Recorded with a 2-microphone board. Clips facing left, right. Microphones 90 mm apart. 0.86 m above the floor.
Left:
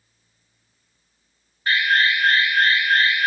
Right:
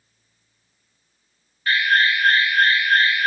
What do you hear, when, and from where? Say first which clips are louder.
1.7 s an alarm: right 1 dB; 20° left (ahead or behind), 2 m